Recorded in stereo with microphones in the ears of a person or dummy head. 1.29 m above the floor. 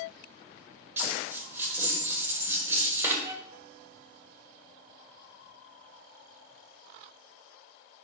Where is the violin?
15° right (ahead or behind), 0.5 m.